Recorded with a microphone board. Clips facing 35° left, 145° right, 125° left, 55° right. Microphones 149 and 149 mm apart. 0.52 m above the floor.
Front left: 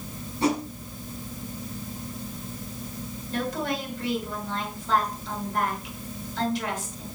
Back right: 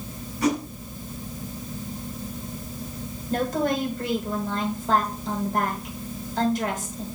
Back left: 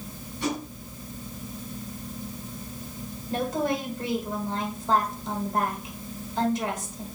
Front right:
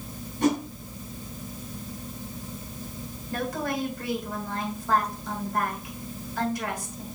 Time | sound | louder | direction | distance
0.4 | a whoosh | back right 1 dB, front right 6 dB | 20° right | 1.6 m
3.3 | a woman speaking | back right 5 dB, back left 3 dB | 175° right | 2.5 m